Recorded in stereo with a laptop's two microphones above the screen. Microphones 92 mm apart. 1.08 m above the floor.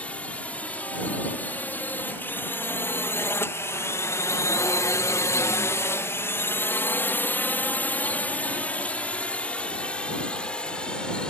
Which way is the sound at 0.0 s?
15° left (ahead or behind).